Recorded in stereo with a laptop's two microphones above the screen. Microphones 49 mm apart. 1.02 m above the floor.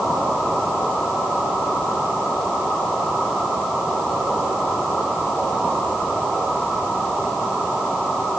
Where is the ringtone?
I don't hear a ringtone.